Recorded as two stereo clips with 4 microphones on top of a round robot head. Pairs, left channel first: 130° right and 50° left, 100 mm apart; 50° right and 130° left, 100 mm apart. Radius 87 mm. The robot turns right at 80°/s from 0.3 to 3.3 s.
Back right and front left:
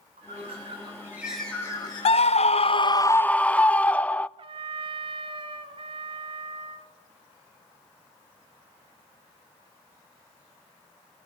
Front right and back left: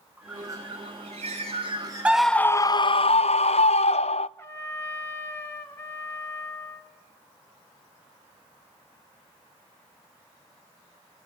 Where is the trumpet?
15° left, 3 m.